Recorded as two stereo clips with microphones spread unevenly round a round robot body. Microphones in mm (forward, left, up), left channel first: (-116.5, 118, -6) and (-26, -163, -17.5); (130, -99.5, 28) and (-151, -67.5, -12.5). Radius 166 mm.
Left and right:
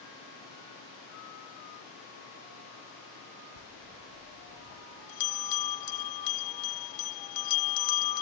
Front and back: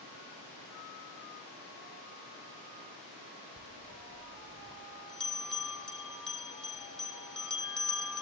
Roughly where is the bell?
Left.